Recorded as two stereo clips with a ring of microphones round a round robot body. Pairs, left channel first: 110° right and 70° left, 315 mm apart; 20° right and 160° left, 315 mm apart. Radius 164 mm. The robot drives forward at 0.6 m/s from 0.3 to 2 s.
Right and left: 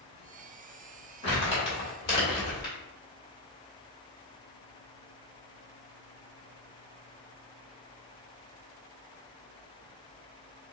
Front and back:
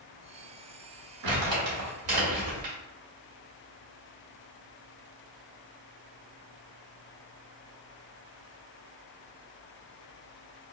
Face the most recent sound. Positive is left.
turn(degrees=175)